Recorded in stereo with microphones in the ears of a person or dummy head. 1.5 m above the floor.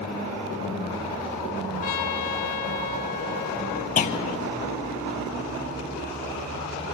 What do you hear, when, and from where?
1.8 s a trumpet: 50° left (ahead or behind), 0.7 m
4.0 s a clunk: 40° left (ahead or behind), 1.0 m